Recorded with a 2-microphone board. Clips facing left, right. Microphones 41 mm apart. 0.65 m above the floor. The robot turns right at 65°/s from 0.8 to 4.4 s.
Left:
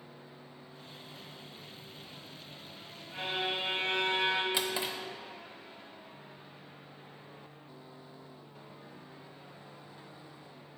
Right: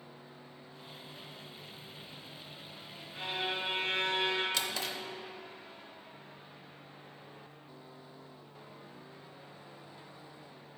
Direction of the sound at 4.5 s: 20° left (ahead or behind).